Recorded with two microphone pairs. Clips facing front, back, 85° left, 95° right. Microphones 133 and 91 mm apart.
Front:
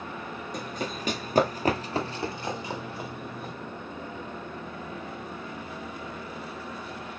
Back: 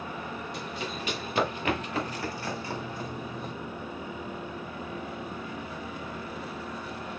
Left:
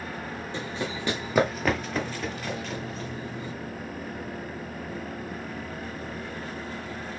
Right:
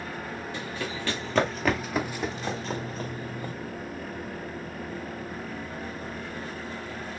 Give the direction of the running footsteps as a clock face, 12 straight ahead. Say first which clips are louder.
Front 2 dB, left 4 dB; 11 o'clock.